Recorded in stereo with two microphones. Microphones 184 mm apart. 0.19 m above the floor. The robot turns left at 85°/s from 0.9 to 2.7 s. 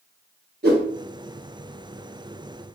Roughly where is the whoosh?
Right.